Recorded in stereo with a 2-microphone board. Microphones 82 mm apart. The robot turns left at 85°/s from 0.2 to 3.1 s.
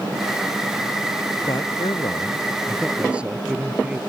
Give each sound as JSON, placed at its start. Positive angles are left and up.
{"t": 1.5, "sound": "a man speaking", "azimuth_deg": 125}